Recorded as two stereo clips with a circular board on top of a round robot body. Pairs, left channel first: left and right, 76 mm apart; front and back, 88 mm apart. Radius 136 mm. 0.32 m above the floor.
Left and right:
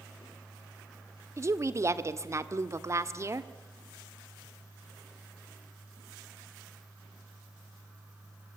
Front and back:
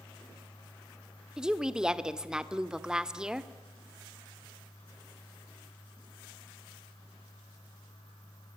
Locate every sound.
1.4 s a woman speaking: 100° right, 1.5 m